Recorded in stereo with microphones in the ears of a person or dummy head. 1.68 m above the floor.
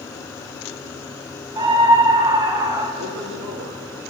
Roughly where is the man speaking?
Right.